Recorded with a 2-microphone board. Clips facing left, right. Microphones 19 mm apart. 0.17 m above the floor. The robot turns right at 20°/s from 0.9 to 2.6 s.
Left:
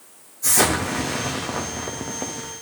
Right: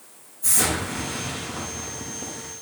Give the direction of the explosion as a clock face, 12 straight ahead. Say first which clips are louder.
Left 4 dB; 10 o'clock.